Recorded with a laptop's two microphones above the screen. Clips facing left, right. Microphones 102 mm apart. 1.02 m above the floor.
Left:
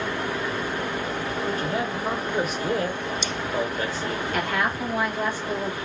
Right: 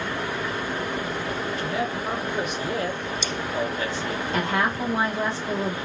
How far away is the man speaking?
About 1.0 m.